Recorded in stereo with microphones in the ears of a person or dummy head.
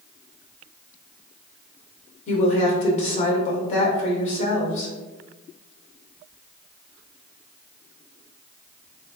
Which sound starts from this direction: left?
A woman speaking, at 2.3 s.